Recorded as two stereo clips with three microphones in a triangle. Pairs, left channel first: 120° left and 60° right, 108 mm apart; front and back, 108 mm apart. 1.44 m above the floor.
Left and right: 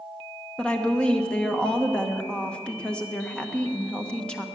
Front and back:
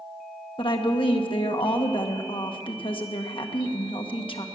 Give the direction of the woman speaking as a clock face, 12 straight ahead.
11 o'clock.